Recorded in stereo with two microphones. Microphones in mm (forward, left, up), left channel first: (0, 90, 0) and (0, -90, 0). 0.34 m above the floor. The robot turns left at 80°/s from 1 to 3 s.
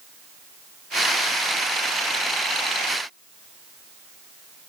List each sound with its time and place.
Only background noise.